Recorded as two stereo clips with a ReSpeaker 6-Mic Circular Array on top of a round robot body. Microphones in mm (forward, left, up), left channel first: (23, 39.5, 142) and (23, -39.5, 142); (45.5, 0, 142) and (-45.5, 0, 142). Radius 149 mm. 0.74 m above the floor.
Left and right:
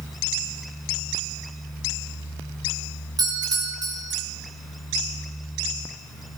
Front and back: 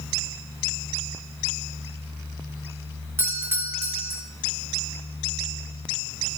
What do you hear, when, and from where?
3.2 s a doorbell: 115° right, 3 m